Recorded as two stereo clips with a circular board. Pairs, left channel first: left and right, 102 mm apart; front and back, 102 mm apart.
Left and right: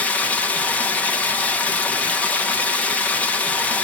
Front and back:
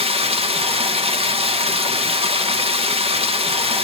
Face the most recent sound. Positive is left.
turn(degrees=165)